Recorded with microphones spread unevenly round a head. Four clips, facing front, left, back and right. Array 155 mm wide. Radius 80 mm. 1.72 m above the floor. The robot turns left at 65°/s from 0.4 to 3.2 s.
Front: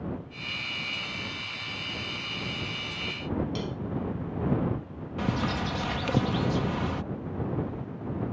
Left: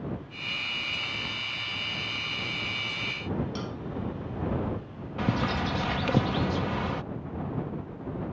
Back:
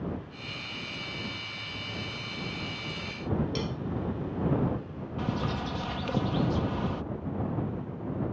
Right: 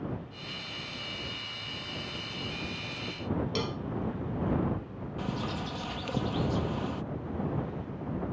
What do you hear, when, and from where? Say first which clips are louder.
3.5 s a cowbell: right 2 dB, even; 110° right
5.2 s a bird: left 7 dB, front 3 dB; 55° left